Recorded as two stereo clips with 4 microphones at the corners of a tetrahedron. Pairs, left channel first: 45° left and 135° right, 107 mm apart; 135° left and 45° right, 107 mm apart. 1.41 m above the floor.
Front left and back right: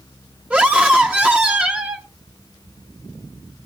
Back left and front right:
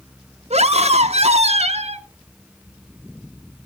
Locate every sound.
0.5 s a scream: 55° right, 0.9 m